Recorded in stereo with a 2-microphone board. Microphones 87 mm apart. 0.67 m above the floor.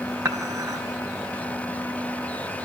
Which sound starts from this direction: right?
Dishes clattering, at 0.2 s.